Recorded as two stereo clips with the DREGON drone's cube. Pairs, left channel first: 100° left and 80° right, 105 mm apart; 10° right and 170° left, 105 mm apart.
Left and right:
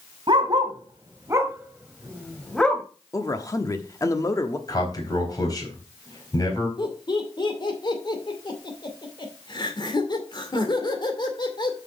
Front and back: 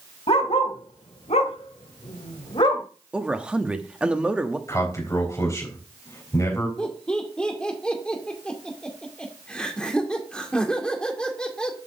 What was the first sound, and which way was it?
A dog barking, 40° right.